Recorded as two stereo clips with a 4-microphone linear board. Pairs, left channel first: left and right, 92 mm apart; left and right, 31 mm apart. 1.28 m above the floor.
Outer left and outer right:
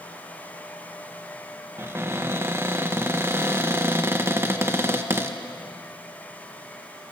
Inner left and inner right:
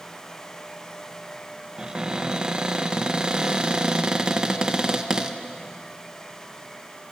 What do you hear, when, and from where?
1.8 s a cupboard door: 25° right (ahead or behind), 1.7 m